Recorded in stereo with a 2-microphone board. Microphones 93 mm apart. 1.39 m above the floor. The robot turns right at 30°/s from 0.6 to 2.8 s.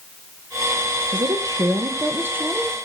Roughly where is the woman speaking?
Ahead right.